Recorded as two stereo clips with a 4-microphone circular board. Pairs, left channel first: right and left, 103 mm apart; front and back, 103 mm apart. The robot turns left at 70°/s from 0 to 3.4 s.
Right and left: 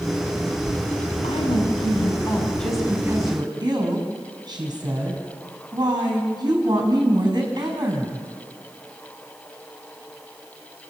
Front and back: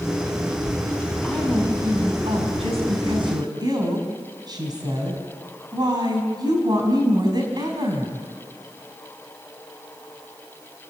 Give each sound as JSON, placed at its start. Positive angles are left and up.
{"t": 1.2, "sound": "a woman speaking", "azimuth_deg": -75, "distance_m": 5.0}